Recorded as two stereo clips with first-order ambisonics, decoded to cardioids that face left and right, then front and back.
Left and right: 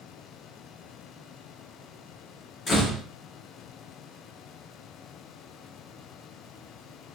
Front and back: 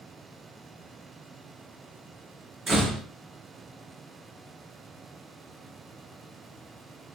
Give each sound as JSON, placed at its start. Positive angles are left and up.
{"t": 2.7, "sound": "a door slam", "azimuth_deg": 120, "distance_m": 0.9}